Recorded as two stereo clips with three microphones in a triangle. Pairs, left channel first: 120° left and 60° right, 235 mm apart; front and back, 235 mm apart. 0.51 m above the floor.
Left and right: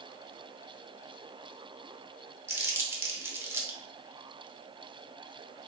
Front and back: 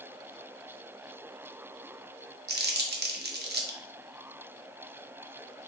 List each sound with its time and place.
2.5 s crumpling: 140° right, 0.6 m